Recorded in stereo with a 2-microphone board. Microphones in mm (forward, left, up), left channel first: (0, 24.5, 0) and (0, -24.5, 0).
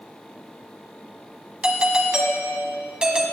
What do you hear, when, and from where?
1.6 s a doorbell: 20° right (ahead or behind), 1.4 m